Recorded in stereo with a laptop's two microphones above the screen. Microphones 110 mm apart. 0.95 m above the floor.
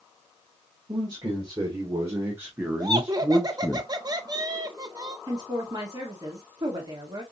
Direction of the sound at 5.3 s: 35° right (ahead or behind).